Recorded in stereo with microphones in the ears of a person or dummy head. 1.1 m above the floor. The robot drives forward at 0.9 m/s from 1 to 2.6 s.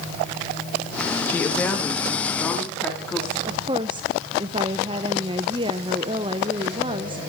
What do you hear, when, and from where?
1.3 s a woman speaking: 10° left (ahead or behind), 1.2 m; by 3.4 s 5° left (ahead or behind), 2.5 m
3.5 s a woman speaking: 25° right (ahead or behind), 0.7 m